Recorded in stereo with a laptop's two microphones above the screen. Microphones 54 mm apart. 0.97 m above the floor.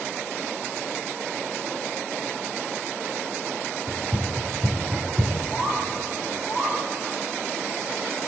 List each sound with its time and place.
3.9 s running footsteps: 40° right (ahead or behind), 4 m; by 5.4 s 60° right (ahead or behind), 2.5 m
5.5 s a bird: 60° right (ahead or behind), 3.5 m